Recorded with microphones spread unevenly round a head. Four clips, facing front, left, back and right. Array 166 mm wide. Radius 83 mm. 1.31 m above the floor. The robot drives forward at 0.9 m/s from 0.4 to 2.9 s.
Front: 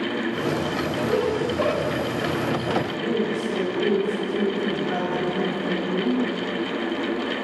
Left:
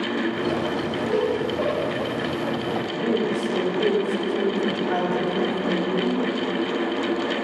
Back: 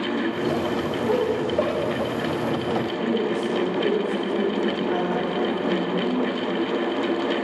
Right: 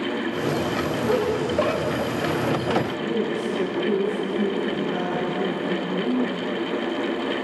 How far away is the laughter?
About 3 m.